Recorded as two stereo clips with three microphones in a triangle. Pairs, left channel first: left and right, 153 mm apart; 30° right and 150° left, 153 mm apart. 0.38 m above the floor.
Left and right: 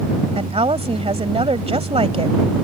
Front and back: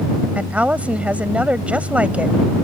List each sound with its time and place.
0.3 s a woman speaking: 130° right